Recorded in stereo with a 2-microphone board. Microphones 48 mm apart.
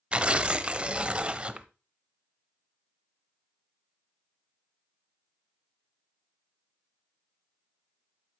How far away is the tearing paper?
About 0.7 m.